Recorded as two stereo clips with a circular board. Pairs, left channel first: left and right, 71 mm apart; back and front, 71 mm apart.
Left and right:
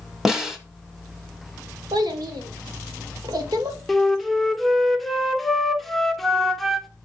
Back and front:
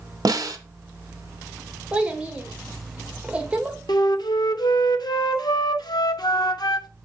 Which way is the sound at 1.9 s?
75° right.